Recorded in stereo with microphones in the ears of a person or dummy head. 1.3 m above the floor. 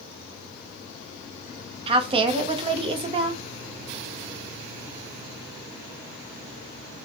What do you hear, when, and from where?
1.9 s a woman speaking: 35° right (ahead or behind), 0.5 m